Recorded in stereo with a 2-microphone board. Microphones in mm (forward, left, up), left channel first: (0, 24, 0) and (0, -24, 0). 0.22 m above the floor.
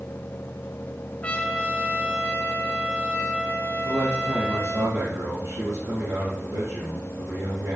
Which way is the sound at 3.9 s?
70° right (ahead or behind).